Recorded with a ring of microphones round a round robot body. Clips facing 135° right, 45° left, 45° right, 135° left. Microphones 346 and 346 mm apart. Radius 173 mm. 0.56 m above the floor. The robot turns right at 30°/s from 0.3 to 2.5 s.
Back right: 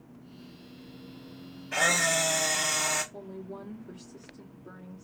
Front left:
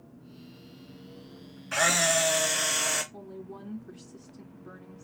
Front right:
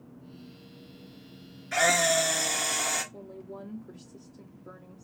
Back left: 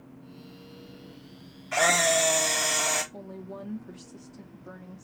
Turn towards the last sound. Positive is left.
turn(degrees=110)